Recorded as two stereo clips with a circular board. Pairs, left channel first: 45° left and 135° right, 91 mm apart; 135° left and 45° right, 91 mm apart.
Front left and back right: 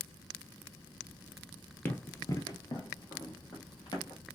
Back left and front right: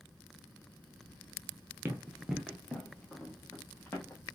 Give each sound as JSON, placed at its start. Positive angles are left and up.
{"t": 1.9, "sound": "running footsteps", "azimuth_deg": 0, "distance_m": 0.7}